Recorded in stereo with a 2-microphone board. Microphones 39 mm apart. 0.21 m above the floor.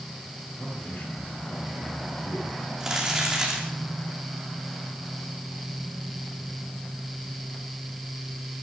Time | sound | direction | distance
0.6 | a man speaking | 60° left (ahead or behind) | 5.5 m
2.8 | crumpling | 15° right (ahead or behind) | 4.5 m